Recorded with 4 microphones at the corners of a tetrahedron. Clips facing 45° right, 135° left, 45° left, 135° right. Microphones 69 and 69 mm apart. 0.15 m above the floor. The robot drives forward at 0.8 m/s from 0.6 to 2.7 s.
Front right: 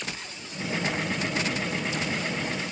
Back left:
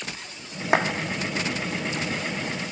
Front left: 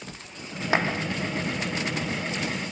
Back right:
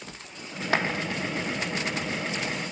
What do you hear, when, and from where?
0.7 s a clap: 125° left, 5 m